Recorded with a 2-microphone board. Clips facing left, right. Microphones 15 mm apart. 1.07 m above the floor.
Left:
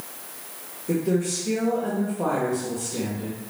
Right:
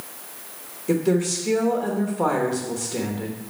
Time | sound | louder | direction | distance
0.9 | a woman speaking | right 3 dB | 35° right (ahead or behind) | 1.1 m